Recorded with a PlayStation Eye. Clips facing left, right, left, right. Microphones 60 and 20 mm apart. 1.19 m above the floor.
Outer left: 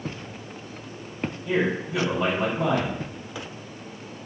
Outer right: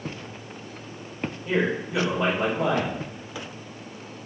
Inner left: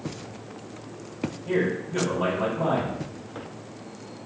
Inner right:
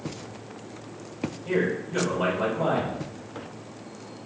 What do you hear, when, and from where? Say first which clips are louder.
1.4 s a man speaking: even, even; 70° right (ahead or behind), 2 m